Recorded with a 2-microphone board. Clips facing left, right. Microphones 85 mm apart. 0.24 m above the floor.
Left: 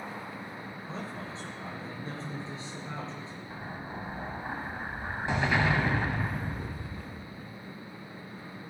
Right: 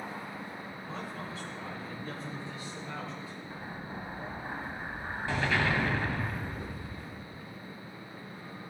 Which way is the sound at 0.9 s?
30° left (ahead or behind).